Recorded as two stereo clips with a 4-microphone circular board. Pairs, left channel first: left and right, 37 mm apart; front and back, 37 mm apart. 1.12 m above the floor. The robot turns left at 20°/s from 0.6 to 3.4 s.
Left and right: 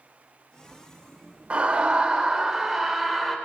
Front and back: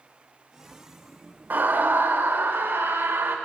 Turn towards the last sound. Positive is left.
turn(degrees=180)